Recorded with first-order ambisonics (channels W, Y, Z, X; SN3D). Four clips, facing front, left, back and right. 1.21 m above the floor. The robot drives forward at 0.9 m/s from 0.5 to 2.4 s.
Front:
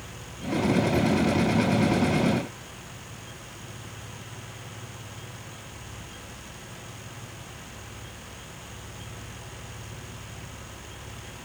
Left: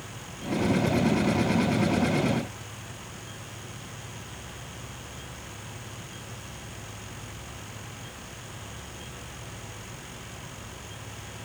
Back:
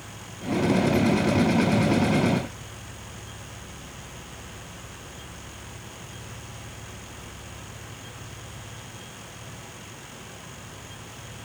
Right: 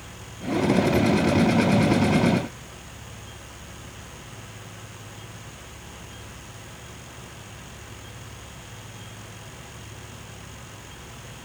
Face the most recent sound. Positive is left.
No sound to turn to.